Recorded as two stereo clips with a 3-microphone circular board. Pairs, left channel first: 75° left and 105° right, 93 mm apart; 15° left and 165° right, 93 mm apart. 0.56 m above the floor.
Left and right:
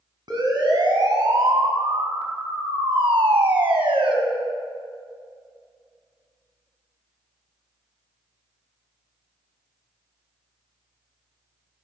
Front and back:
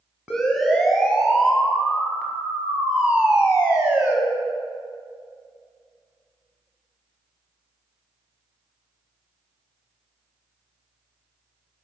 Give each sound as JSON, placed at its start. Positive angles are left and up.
{"t": 0.3, "sound": "a siren", "azimuth_deg": -75, "distance_m": 7.0}